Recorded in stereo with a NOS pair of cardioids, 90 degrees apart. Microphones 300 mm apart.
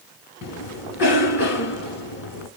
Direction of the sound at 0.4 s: 60° left.